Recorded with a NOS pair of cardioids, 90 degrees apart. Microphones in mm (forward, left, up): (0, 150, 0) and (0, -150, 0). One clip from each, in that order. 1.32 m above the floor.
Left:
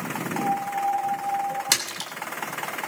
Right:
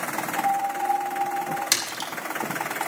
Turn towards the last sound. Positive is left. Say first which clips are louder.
# even
turn(degrees=15)